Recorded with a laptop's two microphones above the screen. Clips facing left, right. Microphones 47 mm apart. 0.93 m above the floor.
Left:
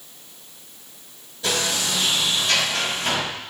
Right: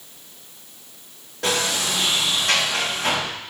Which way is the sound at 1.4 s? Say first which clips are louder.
Right 1 dB; 70° right (ahead or behind).